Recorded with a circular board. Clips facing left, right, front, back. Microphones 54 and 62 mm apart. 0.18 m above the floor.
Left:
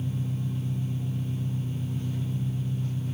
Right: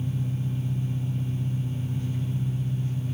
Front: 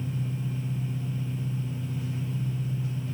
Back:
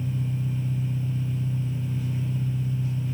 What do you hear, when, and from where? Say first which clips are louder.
0.0 s an engine running: right 1 dB, back 3 dB; 75° left, 6.5 m